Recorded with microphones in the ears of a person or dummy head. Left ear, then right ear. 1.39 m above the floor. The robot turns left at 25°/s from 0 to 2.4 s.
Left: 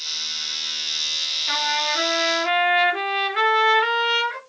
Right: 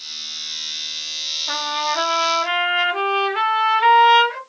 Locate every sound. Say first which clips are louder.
1.5 s a trumpet: even; 15° left (ahead or behind), 1.9 m; by 4.4 s 10° right (ahead or behind), 1.9 m